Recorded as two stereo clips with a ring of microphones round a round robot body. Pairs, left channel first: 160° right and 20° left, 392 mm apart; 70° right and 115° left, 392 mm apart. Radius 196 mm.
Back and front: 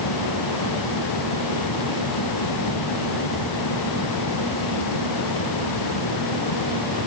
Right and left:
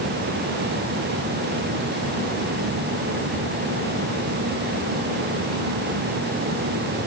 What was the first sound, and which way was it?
Only background noise.